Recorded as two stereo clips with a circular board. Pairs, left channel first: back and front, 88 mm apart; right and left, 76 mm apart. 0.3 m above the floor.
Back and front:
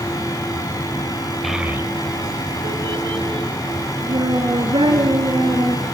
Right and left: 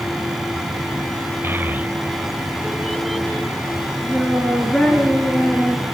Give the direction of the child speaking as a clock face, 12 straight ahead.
9 o'clock.